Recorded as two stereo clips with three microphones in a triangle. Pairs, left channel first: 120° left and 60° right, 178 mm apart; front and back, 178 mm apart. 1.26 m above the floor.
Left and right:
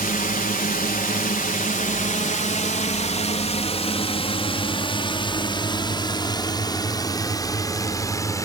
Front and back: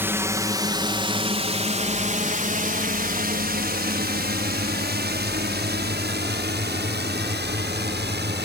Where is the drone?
105° left; by 8.4 s 170° right.